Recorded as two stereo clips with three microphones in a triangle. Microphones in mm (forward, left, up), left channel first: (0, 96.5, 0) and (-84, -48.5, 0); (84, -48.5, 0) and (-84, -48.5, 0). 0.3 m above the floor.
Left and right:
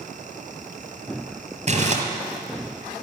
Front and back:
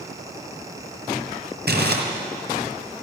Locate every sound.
1.7 s crumpling: 170° right, 2.0 m